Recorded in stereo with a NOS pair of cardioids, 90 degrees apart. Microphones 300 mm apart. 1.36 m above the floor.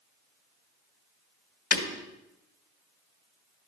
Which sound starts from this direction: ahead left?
Breaking glass, at 1.7 s.